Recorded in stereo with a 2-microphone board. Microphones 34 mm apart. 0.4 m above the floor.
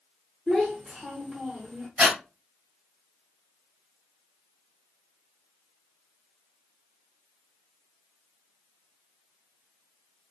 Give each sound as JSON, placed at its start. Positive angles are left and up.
{"t": 0.5, "sound": "a child speaking", "side_deg": -15, "distance_m": 1.1}
{"t": 2.0, "sound": "breathing", "side_deg": -30, "distance_m": 2.5}